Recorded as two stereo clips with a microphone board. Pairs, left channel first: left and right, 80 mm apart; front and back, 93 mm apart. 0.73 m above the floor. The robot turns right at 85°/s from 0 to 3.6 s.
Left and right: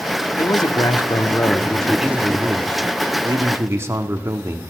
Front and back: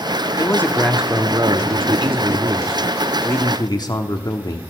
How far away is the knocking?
No knocking in this recording.